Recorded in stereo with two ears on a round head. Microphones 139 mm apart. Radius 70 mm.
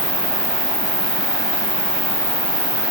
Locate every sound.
0.0 s an insect: 30° left (ahead or behind), 3 m